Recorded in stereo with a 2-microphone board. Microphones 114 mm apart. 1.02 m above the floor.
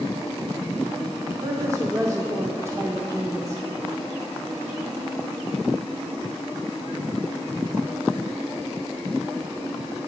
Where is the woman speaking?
25° right (ahead or behind), 0.6 m.